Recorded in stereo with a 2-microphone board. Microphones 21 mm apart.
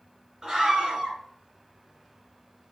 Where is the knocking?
I don't hear knocking.